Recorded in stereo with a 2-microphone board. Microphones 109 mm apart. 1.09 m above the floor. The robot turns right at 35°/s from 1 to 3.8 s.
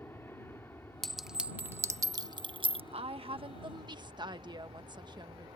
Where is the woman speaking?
80° right; by 5.5 s 45° right.